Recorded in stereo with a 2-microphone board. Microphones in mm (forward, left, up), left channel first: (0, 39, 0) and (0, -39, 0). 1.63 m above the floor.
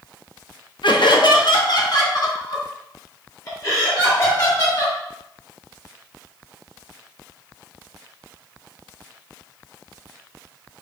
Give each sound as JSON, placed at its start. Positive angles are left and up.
{"t": 0.8, "sound": "laughter", "side_deg": 85, "distance_m": 0.7}